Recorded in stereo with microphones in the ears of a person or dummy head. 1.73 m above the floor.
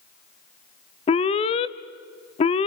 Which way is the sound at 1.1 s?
30° left (ahead or behind).